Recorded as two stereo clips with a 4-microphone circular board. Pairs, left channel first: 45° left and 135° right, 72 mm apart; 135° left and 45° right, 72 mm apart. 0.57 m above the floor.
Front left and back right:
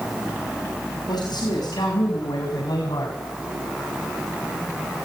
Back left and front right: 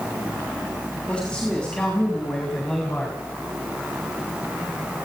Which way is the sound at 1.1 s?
60° left.